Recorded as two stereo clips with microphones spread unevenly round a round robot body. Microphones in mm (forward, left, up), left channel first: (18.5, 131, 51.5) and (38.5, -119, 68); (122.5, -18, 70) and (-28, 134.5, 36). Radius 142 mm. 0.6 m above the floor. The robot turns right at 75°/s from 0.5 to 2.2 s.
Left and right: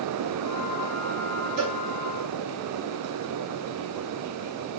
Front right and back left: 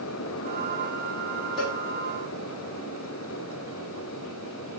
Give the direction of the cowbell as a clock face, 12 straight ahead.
5 o'clock.